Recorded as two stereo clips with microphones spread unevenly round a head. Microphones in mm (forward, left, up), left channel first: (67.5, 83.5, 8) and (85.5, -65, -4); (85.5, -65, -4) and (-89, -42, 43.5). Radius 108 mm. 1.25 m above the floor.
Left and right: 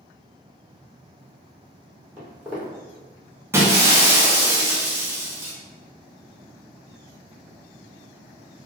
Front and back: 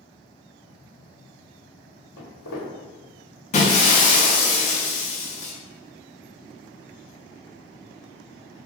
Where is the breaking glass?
25° right, 0.6 m.